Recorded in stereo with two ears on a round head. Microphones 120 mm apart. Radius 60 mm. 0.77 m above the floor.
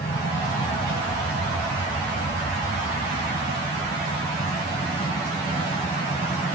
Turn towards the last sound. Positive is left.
turn(degrees=40)  # may be behind; listen again after turning